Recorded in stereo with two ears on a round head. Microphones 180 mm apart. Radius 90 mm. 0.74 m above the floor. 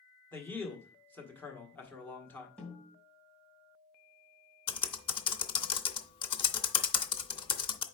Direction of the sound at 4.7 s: 25° left (ahead or behind).